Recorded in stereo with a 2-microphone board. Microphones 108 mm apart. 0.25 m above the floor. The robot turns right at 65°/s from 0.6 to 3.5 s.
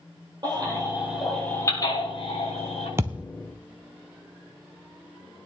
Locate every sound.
0.4 s a baby crying: 40° right (ahead or behind), 6 m; by 2.9 s 70° left (ahead or behind), 6 m
3.0 s a thud: 20° right (ahead or behind), 0.7 m; by 3.2 s 5° right (ahead or behind), 0.7 m